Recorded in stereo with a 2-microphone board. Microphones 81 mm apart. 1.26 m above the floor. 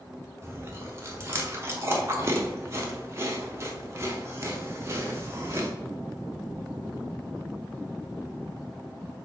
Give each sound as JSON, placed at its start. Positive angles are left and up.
{"t": 0.4, "sound": "chewing", "side_deg": -30, "distance_m": 0.8}